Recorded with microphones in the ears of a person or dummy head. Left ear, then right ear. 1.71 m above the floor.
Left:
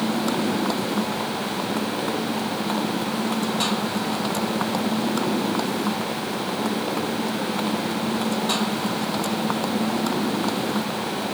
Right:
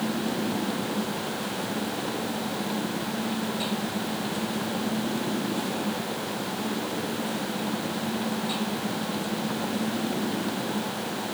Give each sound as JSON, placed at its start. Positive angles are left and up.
{"t": 0.0, "sound": "a motorcycle", "side_deg": 55}